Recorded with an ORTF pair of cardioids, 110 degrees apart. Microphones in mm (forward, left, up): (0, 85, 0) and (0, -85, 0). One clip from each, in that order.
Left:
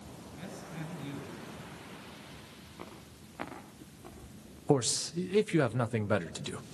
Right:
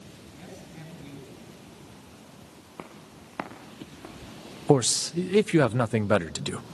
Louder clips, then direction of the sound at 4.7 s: Right 7 dB; 30° right.